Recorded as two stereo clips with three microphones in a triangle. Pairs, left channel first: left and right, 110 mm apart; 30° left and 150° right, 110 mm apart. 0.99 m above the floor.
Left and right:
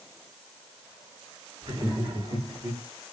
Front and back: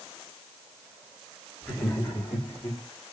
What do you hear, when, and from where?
1.6 s laughter: 50° right, 3 m; by 2.8 s 30° right, 2 m